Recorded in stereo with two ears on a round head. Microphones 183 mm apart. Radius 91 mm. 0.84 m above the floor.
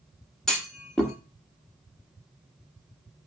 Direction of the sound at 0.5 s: 5° left (ahead or behind).